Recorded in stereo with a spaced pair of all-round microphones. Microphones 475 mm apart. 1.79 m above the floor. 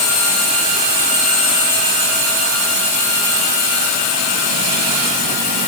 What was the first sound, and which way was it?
Only background noise.